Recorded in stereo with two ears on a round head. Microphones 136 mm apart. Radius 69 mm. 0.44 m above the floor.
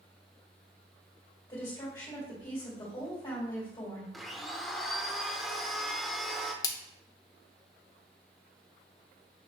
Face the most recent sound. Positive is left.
turn(degrees=25)  # may be behind; listen again after turning